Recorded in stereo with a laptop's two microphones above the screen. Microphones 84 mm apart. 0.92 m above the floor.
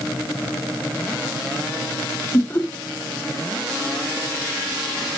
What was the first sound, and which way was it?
Laughter, 25° left (ahead or behind).